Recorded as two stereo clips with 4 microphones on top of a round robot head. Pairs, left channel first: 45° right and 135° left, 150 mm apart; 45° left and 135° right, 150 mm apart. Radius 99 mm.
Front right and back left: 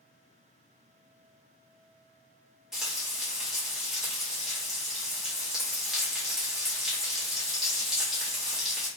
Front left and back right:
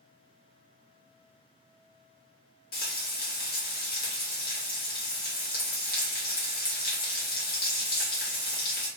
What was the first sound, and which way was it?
Frying, 50° left.